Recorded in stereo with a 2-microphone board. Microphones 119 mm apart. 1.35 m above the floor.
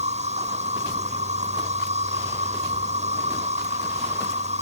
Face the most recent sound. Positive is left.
turn(degrees=-75)  # may be behind; listen again after turning